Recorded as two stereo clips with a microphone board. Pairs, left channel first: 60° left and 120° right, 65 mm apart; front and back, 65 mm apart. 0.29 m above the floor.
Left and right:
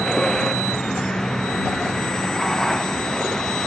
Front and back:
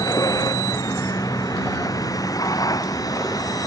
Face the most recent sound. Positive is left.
turn(degrees=-25)